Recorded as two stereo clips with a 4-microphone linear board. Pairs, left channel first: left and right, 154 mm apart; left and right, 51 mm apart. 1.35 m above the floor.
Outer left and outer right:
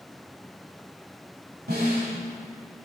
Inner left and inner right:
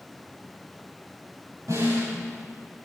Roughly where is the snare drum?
Right.